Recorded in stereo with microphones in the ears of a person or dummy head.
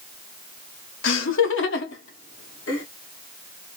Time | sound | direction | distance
1.0 | laughter | 70° left (ahead or behind) | 1.1 m